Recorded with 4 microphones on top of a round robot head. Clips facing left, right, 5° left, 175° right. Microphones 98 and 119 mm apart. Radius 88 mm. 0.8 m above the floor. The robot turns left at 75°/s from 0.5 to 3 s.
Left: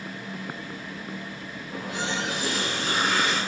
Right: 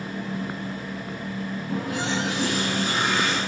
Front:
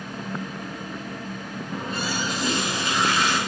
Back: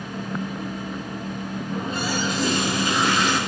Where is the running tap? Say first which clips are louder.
Right 3 dB, back 2 dB; 85° right, 6 m; by 3.4 s straight behind, 6 m.